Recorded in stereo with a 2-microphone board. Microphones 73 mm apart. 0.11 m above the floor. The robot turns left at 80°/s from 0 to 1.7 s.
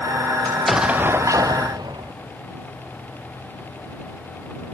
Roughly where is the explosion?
Ahead.